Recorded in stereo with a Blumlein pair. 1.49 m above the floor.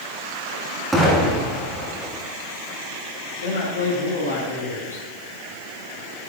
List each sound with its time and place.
0.9 s an explosion: 5° right, 3 m
3.4 s a man speaking: 70° left, 4 m